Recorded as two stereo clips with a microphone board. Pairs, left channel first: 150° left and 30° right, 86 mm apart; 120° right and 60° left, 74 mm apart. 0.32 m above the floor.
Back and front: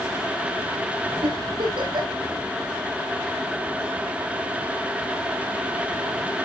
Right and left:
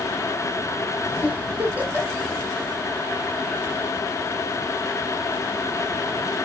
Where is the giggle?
10° right, 4.5 m.